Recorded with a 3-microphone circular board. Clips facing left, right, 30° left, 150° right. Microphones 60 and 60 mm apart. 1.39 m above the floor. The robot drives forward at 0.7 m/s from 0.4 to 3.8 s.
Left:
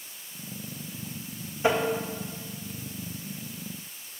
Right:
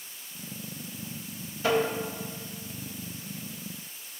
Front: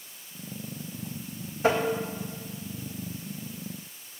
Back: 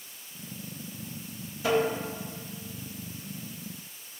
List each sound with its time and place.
1.6 s tapping: 40° left, 1.6 m; by 1.9 s 45° left, 1.5 m